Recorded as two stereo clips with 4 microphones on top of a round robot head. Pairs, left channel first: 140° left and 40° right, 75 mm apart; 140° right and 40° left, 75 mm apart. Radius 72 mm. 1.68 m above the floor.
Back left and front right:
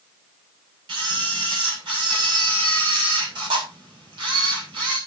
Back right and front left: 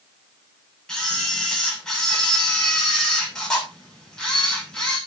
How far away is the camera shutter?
About 6.5 m.